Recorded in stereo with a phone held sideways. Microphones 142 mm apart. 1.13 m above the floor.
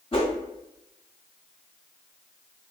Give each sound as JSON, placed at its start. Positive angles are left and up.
{"t": 0.1, "sound": "a whoosh", "side_deg": 40, "distance_m": 1.0}